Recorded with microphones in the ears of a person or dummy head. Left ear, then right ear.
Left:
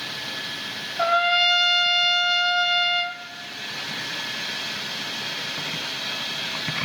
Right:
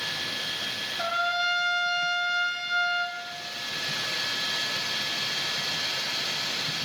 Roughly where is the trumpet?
Left.